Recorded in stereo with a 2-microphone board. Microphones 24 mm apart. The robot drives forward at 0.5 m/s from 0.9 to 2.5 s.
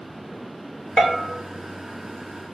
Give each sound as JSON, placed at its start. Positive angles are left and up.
{"t": 1.0, "sound": "a bell", "side_deg": 15, "distance_m": 0.6}